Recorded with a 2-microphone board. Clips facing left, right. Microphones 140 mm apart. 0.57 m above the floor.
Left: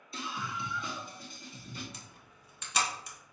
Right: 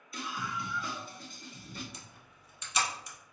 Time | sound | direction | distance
0.1 | a scream | 25° left (ahead or behind) | 0.9 m
1.9 | a camera shutter | 65° left (ahead or behind) | 1.0 m